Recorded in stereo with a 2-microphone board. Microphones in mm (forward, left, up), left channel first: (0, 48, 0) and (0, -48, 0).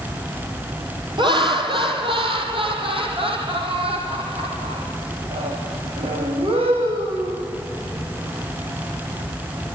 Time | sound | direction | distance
1.2 | laughter | 60° right (ahead or behind) | 3 m